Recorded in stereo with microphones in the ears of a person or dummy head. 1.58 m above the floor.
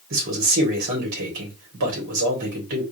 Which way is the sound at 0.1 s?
50° right (ahead or behind).